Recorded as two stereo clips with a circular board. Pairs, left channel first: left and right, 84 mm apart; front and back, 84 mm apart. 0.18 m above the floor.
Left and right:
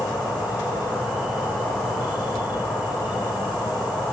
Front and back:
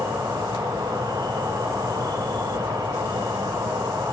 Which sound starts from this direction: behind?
An insect, at 0.0 s.